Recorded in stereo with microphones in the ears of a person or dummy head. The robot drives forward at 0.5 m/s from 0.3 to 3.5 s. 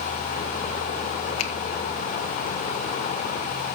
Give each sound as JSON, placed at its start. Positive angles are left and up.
{"t": 1.4, "sound": "a finger snap", "side_deg": 85, "distance_m": 1.5}